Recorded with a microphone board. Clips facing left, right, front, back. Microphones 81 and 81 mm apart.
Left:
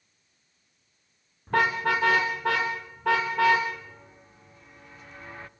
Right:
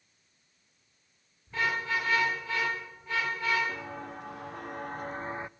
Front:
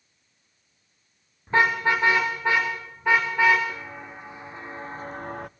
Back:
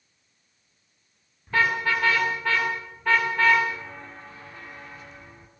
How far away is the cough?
No cough in this recording.